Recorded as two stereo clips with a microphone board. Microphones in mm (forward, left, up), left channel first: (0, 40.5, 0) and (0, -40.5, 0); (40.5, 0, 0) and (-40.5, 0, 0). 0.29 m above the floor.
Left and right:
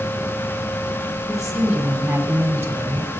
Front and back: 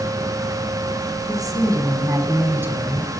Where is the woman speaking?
175° right, 2 m; by 3.1 s 120° right, 1.8 m.